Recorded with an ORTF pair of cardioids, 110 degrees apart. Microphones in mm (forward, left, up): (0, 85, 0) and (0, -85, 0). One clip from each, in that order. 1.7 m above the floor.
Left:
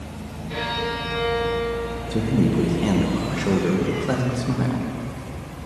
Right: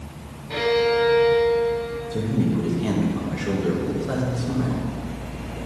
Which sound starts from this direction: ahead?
A violin, at 0.5 s.